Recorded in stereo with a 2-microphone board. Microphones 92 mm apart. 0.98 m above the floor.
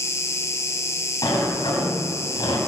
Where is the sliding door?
50° left (ahead or behind), 3.5 m.